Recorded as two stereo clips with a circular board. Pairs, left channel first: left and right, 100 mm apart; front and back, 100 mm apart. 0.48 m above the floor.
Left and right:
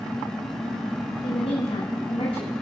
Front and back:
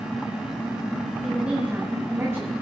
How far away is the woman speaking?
About 2.5 m.